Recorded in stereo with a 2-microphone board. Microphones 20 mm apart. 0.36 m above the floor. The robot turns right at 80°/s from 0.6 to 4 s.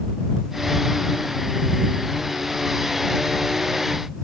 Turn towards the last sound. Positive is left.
No sound to turn to.